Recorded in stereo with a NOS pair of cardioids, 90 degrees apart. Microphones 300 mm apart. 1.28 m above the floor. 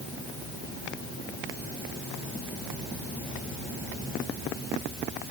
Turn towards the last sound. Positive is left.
No sound to turn to.